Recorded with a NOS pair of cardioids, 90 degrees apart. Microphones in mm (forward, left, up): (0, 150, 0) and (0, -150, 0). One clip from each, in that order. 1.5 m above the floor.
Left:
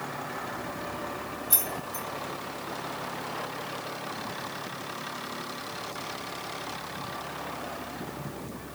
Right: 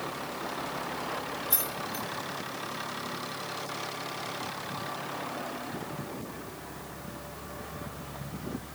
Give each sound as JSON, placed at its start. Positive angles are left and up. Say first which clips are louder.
{"t": 1.5, "sound": "keys jangling", "louder": "left 1 dB", "azimuth_deg": 20, "distance_m": 1.1}